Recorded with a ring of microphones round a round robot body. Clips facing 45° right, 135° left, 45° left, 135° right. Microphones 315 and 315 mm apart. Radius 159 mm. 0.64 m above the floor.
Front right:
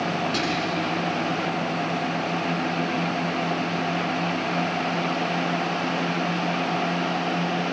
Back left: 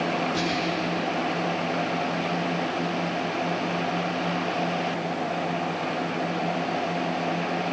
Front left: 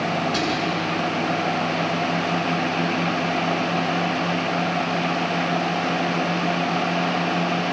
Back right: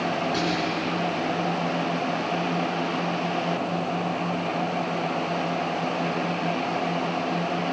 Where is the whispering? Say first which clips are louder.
Front right 1 dB, front left 2 dB; 20° right, 8 m.